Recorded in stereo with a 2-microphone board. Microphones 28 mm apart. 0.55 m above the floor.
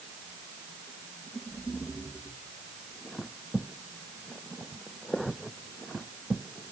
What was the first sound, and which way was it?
Only background noise.